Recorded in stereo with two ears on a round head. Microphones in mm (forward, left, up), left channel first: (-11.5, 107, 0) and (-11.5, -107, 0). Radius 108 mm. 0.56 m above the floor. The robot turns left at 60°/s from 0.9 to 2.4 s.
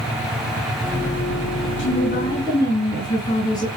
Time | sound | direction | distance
1.8 | a woman speaking | 55° left | 8.5 m